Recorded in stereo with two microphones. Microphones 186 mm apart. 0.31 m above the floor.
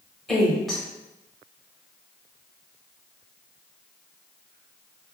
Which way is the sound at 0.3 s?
Centre (ahead or behind).